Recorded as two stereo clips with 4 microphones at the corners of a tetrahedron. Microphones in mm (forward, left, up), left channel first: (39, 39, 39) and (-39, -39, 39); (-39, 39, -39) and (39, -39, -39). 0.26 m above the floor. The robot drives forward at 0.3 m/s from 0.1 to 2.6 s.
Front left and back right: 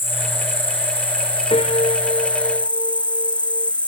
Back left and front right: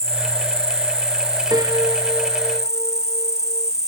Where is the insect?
115° left; by 3.9 s 125° left.